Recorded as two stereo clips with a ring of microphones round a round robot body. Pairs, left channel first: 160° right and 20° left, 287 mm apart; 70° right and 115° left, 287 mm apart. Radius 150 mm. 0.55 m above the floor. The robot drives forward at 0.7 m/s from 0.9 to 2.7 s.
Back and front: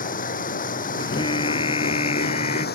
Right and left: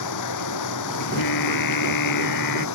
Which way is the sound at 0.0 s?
95° right.